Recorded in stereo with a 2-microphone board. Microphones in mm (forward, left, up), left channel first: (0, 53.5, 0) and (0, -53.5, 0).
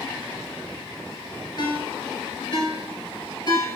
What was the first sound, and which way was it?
A ringtone, 50° left (ahead or behind).